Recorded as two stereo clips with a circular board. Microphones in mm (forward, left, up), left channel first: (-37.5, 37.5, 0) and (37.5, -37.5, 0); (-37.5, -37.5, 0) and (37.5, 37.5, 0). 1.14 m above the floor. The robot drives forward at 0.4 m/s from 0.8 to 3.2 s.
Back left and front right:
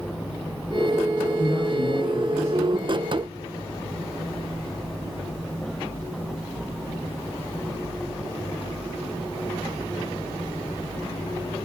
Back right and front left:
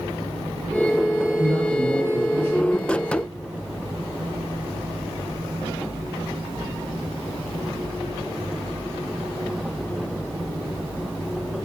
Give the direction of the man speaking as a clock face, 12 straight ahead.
2 o'clock.